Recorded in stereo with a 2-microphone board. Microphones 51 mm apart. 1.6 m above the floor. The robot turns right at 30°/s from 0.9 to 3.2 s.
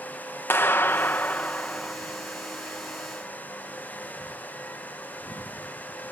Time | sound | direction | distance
0.5 | a clap | 130° left | ?